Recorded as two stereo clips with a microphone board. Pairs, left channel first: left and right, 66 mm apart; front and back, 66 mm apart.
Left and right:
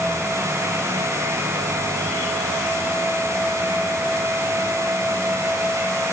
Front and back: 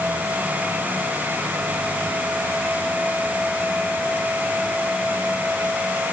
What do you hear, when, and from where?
Only background noise.